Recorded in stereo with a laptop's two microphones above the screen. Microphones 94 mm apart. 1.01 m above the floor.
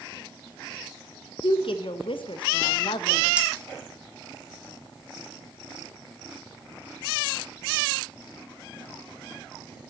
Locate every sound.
1.4 s a woman speaking: 65° left (ahead or behind), 0.6 m
3.4 s cutlery clinking: 15° right (ahead or behind), 0.9 m